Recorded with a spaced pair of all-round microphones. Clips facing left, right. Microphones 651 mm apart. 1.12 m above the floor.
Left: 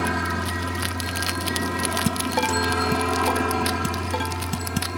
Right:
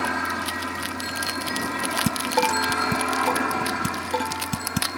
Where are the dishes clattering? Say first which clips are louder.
Right 1 dB; 5° left (ahead or behind).